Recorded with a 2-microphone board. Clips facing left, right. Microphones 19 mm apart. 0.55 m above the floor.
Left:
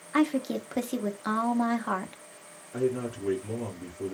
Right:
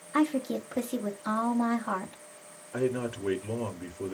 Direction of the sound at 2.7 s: 35° right (ahead or behind).